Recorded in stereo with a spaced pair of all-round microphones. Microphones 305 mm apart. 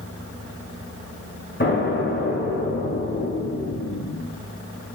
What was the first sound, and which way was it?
An explosion, 35° left (ahead or behind).